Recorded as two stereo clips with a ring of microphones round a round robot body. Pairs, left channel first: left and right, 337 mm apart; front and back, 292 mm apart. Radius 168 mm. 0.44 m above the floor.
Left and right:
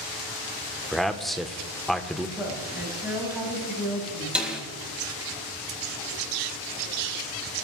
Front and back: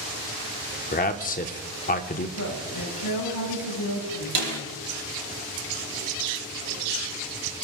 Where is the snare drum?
175° right, 3.5 m.